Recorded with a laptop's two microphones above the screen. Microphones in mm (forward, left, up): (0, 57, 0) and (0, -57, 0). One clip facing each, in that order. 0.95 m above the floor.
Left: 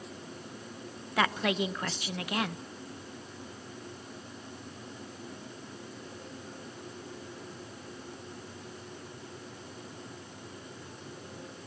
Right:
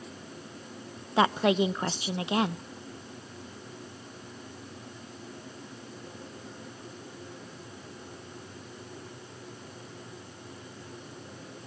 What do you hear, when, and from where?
1.2 s a woman speaking: 25° right (ahead or behind), 0.5 m